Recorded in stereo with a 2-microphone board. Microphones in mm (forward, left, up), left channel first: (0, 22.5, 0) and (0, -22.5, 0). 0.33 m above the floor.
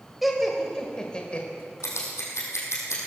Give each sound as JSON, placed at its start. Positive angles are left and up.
{"t": 0.2, "sound": "laughter", "side_deg": 0, "distance_m": 1.4}
{"t": 1.8, "sound": "scissors", "side_deg": 80, "distance_m": 3.5}